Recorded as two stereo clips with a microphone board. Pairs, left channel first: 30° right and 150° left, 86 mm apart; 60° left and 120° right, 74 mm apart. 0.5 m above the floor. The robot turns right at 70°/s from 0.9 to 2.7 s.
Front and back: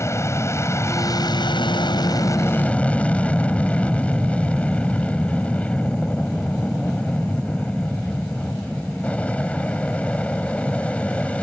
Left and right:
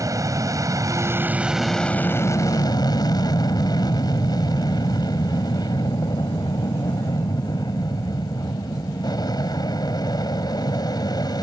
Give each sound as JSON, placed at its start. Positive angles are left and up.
{"t": 0.0, "sound": "an aircraft", "azimuth_deg": -80}